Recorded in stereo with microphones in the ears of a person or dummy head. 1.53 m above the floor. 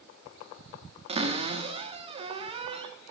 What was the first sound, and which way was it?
A cupboard door, 30° right (ahead or behind).